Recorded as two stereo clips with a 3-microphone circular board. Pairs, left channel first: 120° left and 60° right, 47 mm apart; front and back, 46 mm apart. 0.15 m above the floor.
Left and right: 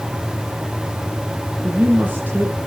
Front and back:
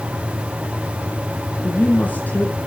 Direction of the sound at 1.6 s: 35° right.